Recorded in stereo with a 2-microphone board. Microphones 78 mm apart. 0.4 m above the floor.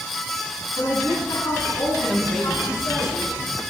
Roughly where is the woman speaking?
Left.